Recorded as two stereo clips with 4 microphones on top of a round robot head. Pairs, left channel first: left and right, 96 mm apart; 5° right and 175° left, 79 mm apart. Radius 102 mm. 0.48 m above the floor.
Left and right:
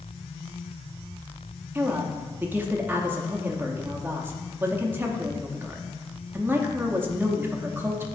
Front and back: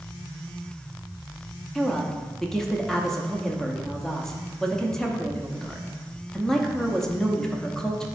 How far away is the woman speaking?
About 0.8 m.